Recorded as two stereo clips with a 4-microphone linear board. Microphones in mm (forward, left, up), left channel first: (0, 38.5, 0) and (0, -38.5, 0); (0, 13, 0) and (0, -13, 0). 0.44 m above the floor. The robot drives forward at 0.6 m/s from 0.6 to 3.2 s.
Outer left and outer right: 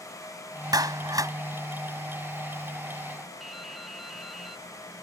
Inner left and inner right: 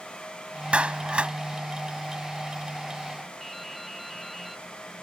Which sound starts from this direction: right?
A clap, at 0.7 s.